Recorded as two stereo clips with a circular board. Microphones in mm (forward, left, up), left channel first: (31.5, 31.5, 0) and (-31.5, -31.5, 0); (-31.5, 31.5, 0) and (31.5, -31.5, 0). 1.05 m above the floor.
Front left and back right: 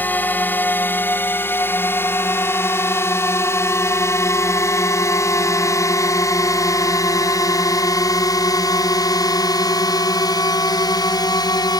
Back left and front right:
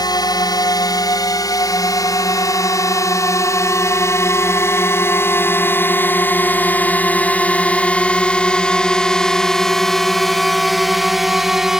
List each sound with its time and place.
0.0 s a drone: 110° left; by 11.8 s 40° left